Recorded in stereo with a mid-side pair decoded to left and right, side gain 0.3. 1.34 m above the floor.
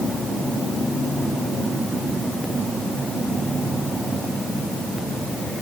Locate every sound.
Only background noise.